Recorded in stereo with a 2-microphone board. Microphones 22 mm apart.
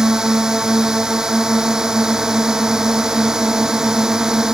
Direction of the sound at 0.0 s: 25° right (ahead or behind).